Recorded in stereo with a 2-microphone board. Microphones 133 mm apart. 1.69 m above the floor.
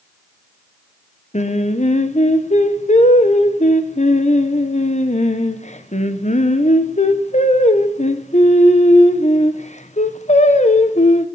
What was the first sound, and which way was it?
Singing, 60° left (ahead or behind).